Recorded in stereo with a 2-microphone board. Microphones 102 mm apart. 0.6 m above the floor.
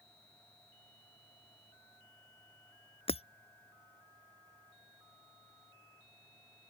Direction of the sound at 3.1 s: 80° left.